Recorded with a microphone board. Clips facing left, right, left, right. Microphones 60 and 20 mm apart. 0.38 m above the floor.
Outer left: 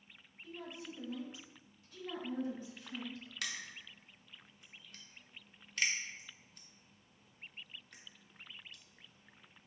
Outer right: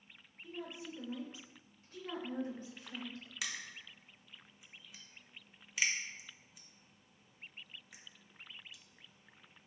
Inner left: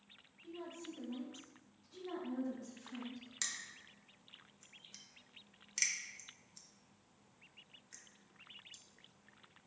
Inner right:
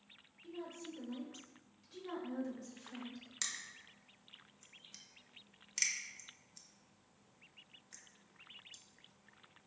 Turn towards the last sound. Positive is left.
turn(degrees=-5)  # may be behind; listen again after turning